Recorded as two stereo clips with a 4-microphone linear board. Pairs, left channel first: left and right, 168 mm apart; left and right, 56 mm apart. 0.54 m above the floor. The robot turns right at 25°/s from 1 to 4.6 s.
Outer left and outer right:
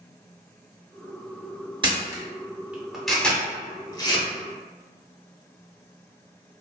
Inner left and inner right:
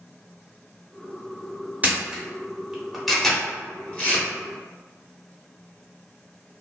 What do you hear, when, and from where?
1.8 s a camera shutter: 30° right (ahead or behind), 0.7 m; by 4.2 s 30° left (ahead or behind), 0.7 m